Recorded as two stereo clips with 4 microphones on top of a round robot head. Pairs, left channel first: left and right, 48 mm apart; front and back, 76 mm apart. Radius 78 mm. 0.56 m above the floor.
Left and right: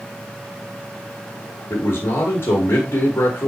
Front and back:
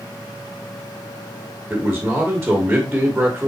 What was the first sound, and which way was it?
A man speaking, 100° left.